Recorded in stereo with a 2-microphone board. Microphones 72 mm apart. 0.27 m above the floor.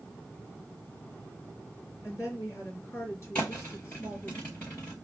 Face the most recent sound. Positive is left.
turn(degrees=20)  # may be behind; listen again after turning